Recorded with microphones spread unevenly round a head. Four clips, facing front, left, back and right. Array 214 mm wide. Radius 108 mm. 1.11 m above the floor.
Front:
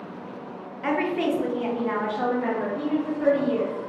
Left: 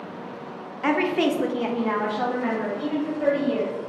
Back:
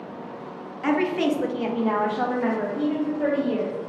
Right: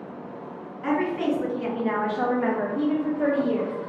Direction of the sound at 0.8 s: 100° left.